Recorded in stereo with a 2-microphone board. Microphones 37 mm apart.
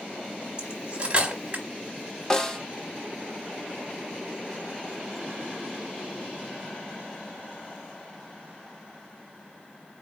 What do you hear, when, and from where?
0.6 s cutlery clinking: 30° right (ahead or behind), 0.9 m
2.3 s a snare drum: 15° left (ahead or behind), 0.7 m